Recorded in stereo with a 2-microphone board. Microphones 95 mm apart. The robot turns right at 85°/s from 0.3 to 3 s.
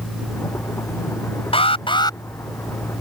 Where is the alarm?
85° left; by 2.2 s 140° left.